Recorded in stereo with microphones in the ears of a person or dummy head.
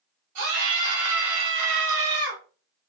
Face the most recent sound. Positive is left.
turn(degrees=-70)  # may be behind; listen again after turning